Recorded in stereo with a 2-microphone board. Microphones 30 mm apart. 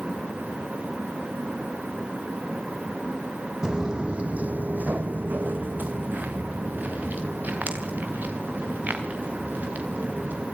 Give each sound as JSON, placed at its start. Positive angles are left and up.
{"t": 3.6, "sound": "footsteps", "side_deg": -20, "distance_m": 1.4}